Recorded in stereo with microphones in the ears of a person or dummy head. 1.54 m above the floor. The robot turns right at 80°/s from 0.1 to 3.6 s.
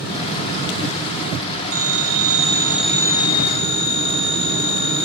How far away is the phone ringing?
About 3.5 m.